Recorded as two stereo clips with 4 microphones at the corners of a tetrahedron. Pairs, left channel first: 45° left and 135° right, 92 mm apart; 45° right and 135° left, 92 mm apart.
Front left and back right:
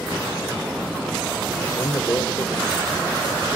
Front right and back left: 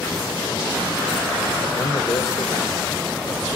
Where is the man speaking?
5° right, 2.5 m.